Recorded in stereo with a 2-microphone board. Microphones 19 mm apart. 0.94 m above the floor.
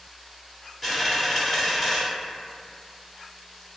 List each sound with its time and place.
0.8 s a dropped coin: 10° left (ahead or behind), 0.9 m